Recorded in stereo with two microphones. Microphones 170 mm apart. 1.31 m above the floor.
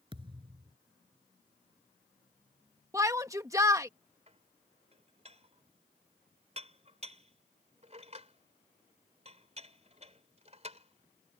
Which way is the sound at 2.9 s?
20° right (ahead or behind).